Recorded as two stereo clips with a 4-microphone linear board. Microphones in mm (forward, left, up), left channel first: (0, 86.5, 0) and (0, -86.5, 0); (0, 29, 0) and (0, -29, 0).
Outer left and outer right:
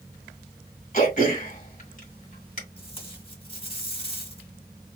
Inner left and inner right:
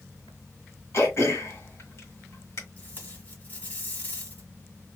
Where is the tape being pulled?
35° left (ahead or behind), 1.3 m.